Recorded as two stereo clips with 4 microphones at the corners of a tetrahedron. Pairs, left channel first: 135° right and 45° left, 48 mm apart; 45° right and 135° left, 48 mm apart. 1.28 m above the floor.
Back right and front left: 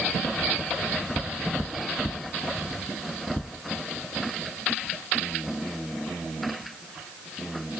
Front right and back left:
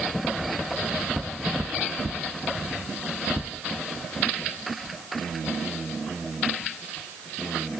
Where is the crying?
No crying in this recording.